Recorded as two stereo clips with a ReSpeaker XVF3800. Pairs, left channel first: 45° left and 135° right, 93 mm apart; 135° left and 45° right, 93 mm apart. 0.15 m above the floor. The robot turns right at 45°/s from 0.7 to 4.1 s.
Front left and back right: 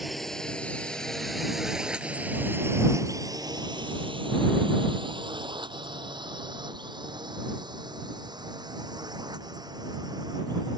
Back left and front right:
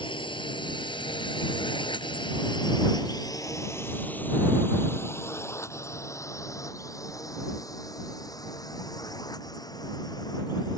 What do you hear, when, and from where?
0.0 s a drone: 135° left; by 10.8 s straight behind